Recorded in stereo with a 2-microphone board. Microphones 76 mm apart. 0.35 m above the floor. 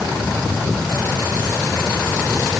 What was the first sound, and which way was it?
Only background noise.